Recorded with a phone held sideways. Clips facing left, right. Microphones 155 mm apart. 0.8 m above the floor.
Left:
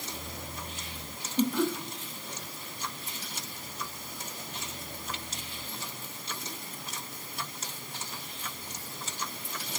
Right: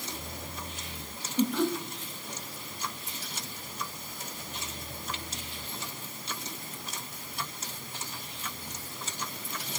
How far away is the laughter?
About 1.3 m.